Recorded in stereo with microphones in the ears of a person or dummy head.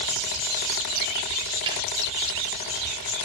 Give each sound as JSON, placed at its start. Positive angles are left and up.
{"t": 1.7, "sound": "a snare drum", "side_deg": -30, "distance_m": 3.5}